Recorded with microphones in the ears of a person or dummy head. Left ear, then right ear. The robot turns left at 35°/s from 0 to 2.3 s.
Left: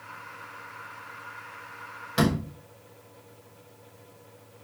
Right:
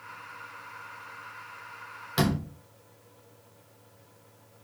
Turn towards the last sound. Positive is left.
turn(degrees=-20)  # may be behind; listen again after turning